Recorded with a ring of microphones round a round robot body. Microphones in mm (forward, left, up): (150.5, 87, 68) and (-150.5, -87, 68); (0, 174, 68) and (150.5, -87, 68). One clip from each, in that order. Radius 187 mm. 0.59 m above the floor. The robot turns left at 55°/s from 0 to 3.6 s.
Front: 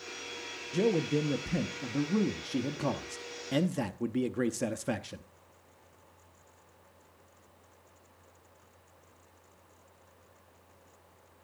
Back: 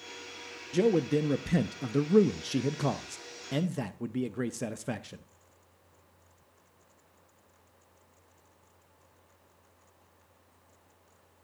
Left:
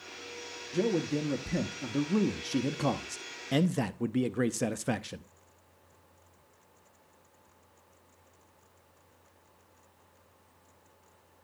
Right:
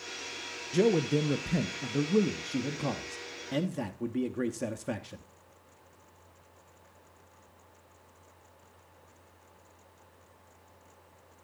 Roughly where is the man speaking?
Right.